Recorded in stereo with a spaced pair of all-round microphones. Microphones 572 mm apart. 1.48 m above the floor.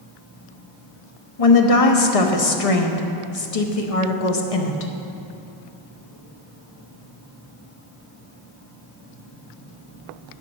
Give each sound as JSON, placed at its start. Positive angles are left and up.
{"t": 1.4, "sound": "a woman speaking", "side_deg": 75, "distance_m": 1.0}